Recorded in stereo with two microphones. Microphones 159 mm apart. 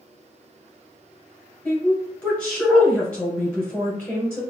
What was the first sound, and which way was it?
A woman speaking, 10° left (ahead or behind).